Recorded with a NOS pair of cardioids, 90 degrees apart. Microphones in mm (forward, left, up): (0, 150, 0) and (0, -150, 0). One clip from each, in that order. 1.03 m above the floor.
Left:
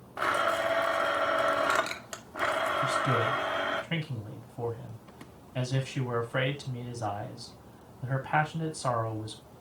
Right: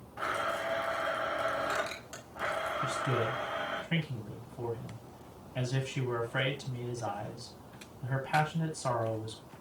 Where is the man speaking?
40° left, 6.5 m.